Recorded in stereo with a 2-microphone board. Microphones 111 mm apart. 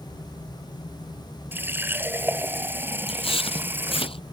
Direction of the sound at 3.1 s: 55° left (ahead or behind).